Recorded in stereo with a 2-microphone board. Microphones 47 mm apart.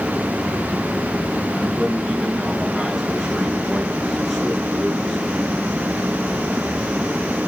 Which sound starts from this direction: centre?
A man speaking, at 1.5 s.